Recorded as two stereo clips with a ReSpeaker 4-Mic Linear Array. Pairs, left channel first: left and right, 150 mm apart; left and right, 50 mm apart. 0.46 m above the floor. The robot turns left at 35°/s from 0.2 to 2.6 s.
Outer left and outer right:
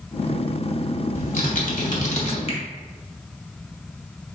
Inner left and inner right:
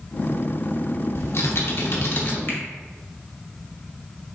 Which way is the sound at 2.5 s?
45° left (ahead or behind).